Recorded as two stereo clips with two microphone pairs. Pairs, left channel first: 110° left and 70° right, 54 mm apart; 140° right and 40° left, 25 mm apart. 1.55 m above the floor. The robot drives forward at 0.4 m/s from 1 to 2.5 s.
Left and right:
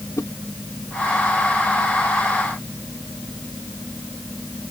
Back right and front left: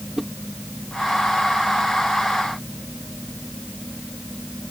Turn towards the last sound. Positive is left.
turn(degrees=130)